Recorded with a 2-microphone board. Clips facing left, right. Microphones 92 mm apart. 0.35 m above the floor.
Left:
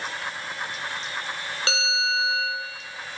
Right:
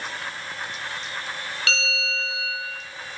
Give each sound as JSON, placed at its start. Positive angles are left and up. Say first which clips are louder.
{"t": 1.7, "sound": "a bell", "louder": "left 3 dB", "side_deg": 30, "distance_m": 5.0}